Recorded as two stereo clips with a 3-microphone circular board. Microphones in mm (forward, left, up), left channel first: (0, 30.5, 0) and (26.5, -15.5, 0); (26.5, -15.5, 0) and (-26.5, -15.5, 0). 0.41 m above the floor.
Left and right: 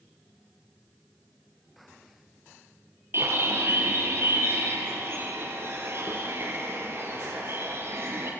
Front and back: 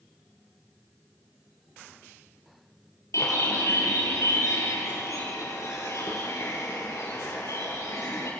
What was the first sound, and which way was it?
A bird, 20° right.